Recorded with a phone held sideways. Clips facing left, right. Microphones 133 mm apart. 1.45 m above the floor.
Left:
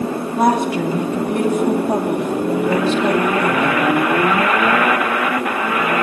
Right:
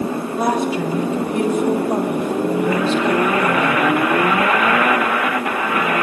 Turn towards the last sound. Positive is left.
turn(degrees=60)  # may be behind; listen again after turning